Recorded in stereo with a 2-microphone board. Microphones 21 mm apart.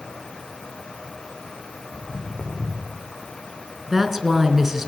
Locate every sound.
1.9 s footsteps: 40° left (ahead or behind), 7.5 m; by 3.0 s 35° left (ahead or behind), 8.5 m
3.9 s a woman speaking: 20° right (ahead or behind), 3.5 m